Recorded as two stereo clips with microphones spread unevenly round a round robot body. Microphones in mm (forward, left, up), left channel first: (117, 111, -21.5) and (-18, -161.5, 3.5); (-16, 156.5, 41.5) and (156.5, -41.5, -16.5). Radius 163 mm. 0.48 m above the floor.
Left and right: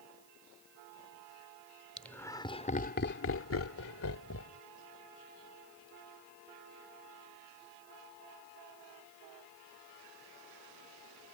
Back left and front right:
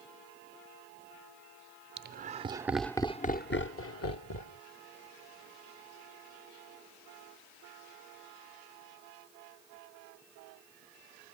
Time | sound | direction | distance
2.0 | laughter | 20° right | ?